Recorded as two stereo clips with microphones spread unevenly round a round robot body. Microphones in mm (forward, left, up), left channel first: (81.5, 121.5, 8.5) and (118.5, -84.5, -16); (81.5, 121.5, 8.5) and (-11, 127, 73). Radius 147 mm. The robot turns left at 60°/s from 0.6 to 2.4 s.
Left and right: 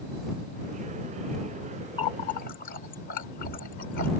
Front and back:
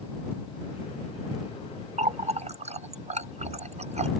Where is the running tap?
170° left; by 4.1 s 145° left.